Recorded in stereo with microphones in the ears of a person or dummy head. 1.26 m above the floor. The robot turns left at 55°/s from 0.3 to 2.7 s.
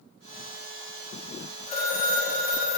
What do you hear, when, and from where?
1.7 s a phone ringing: 145° left, 1.1 m; by 2.8 s 85° left, 1.1 m